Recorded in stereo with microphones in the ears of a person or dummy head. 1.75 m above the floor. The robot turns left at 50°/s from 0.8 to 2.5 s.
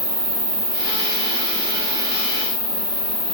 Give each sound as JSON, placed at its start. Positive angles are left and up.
{"t": 0.0, "sound": "an insect", "azimuth_deg": -60, "distance_m": 1.3}